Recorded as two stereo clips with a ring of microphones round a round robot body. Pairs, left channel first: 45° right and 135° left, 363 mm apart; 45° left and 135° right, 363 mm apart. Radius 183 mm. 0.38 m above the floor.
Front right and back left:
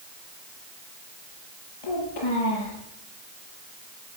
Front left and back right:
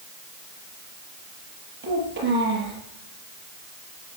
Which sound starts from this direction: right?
A child speaking, at 1.8 s.